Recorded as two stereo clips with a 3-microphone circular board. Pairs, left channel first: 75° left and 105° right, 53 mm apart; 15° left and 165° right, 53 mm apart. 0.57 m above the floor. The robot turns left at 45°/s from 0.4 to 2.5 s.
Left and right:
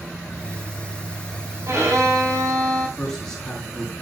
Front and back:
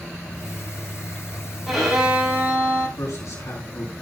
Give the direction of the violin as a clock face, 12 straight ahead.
2 o'clock.